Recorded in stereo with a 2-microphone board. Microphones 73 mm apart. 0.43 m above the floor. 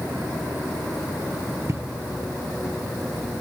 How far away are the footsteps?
About 0.5 m.